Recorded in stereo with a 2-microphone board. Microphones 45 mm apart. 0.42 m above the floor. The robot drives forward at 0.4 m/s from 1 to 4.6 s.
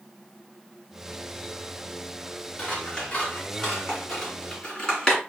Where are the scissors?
20° left (ahead or behind), 1.6 m; by 5.2 s 15° left (ahead or behind), 2.5 m.